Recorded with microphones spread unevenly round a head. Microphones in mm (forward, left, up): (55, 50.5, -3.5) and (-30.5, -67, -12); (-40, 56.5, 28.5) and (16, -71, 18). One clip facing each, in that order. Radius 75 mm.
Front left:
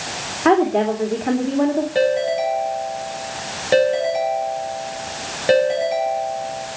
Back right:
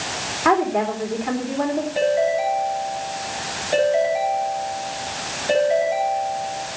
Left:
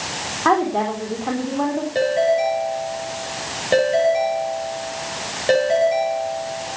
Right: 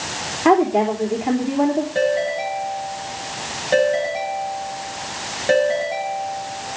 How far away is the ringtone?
About 9.5 m.